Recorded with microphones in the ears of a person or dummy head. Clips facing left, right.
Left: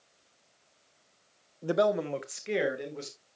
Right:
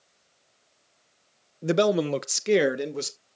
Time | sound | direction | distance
1.6 | a man speaking | 25° right (ahead or behind) | 0.5 m